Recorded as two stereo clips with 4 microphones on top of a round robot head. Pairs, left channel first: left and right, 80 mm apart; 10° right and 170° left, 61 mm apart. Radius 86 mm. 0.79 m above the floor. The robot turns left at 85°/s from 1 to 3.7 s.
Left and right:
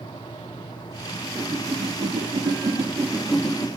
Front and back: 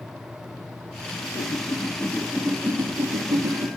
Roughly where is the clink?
I don't hear a clink.